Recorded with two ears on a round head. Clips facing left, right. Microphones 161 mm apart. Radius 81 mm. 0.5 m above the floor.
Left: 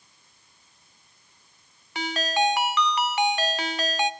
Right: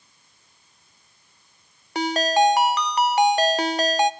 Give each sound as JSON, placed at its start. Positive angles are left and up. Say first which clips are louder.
{"t": 1.9, "sound": "a ringtone", "louder": "right 6 dB", "side_deg": -35, "distance_m": 0.8}